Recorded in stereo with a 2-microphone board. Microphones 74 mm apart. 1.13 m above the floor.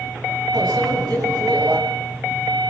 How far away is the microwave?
About 7.5 m.